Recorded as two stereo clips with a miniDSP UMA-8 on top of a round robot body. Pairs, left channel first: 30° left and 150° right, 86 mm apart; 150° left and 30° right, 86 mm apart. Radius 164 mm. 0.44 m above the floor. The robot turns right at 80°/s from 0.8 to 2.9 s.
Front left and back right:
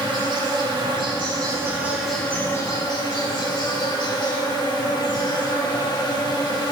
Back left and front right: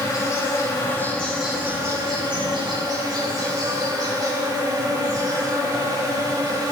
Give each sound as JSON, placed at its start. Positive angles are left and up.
{"t": 0.0, "sound": "an insect", "azimuth_deg": -165, "distance_m": 4.0}